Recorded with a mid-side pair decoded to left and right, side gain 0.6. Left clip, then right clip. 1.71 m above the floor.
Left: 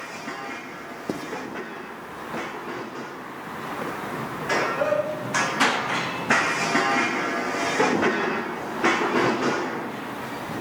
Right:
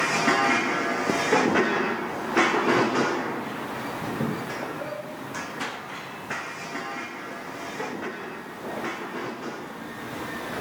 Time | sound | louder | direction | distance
1.1 | writing | right 3 dB | 10° right | 1.3 m